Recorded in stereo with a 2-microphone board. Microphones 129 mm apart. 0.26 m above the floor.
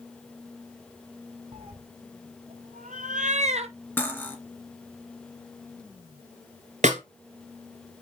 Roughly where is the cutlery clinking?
Centre.